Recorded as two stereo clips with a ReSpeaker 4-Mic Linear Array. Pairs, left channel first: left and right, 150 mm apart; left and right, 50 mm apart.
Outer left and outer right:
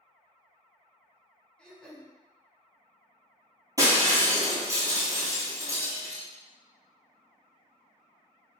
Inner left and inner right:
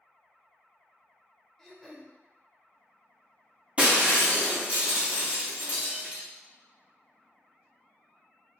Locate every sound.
1.6 s throat clearing: 5° left (ahead or behind), 0.6 m
3.8 s breaking glass: 25° right (ahead or behind), 1.1 m